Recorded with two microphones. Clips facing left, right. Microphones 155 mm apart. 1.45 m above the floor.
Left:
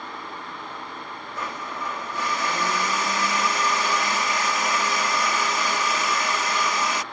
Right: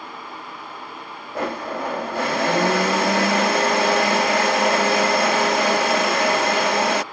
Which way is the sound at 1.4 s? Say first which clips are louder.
Right 9 dB; 75° right (ahead or behind).